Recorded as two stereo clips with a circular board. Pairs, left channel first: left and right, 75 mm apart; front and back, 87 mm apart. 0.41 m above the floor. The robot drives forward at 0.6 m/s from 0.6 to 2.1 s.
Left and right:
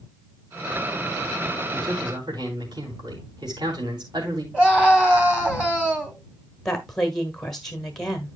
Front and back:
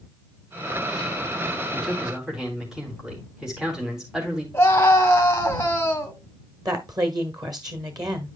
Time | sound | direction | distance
1.7 | a man speaking | 95° right | 3 m
4.5 | a scream | 25° right | 1.2 m
6.7 | a woman speaking | 175° left | 1.5 m